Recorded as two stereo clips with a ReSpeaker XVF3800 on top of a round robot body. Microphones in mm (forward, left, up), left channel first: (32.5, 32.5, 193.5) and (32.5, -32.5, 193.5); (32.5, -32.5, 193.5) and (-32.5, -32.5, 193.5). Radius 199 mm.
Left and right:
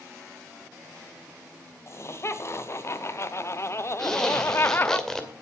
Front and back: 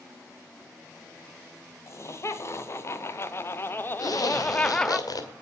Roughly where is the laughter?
Ahead left.